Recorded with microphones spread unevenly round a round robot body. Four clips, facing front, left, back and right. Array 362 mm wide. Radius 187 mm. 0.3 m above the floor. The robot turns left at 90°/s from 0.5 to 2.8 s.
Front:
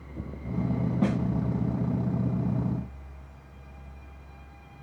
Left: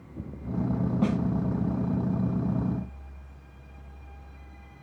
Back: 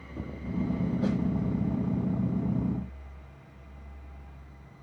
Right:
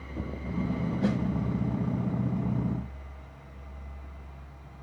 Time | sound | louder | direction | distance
1.0 | a snare drum | left 1 dB, front 4 dB | 30° left | 1.7 m